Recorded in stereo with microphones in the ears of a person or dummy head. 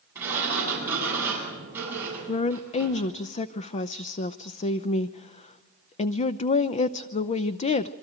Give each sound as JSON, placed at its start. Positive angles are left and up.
{"t": 0.1, "sound": "a sliding door", "side_deg": -20, "distance_m": 8.5}
{"t": 2.3, "sound": "a woman speaking", "side_deg": 45, "distance_m": 0.6}